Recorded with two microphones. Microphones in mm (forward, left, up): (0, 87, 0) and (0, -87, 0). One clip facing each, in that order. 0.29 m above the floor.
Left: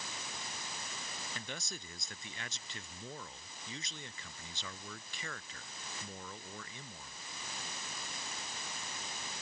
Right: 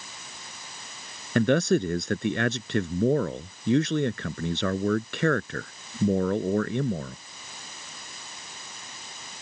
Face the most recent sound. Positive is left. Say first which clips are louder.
# right 30 dB
turn(degrees=-70)  # may be behind; listen again after turning